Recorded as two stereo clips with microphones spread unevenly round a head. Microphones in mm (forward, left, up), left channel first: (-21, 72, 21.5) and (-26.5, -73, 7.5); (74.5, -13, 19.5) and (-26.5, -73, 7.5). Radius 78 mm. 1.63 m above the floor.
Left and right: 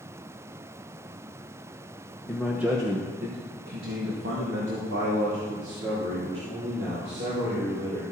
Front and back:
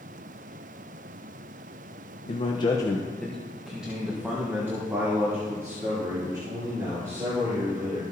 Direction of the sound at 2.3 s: 15° left.